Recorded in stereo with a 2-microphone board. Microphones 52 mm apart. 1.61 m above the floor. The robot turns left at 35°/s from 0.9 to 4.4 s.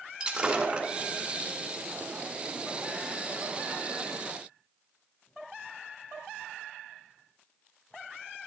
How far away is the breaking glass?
About 1.8 m.